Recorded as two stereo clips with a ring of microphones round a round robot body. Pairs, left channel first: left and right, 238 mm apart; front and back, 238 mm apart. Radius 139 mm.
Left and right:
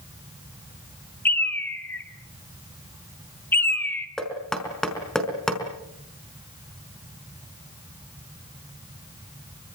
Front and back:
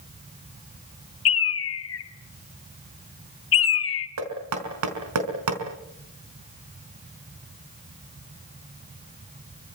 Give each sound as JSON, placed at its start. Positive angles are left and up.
{"t": 1.2, "sound": "a bird", "azimuth_deg": 10, "distance_m": 1.8}
{"t": 4.2, "sound": "knocking", "azimuth_deg": 180, "distance_m": 5.0}